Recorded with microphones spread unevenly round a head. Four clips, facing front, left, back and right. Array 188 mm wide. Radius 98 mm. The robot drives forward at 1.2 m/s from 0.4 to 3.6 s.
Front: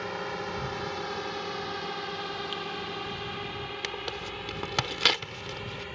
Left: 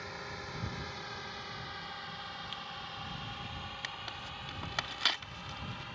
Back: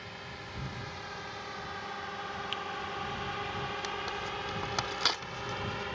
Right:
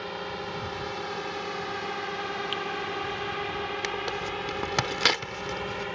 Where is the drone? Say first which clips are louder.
Right 10 dB, front 11 dB; 40° right; by 6.0 s 95° right.